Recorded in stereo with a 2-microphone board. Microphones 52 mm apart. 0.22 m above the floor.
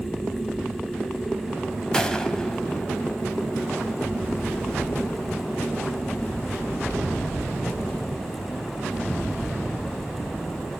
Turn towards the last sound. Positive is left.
turn(degrees=15)  # may be behind; listen again after turning